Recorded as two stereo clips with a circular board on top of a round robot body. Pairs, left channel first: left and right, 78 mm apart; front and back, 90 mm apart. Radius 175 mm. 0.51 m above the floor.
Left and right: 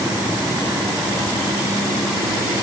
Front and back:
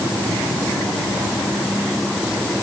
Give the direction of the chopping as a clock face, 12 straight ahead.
No chopping in this recording.